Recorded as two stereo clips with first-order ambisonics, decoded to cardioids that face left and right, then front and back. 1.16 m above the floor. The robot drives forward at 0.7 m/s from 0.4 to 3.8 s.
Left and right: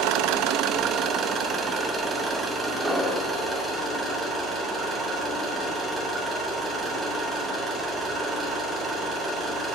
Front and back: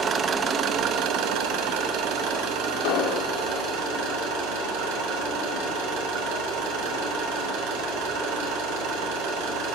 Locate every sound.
0.0 s an engine running: 120° right, 0.8 m; by 9.7 s 165° right, 3 m
2.8 s an explosion: 10° right, 1.4 m; by 3.3 s 15° right, 1.1 m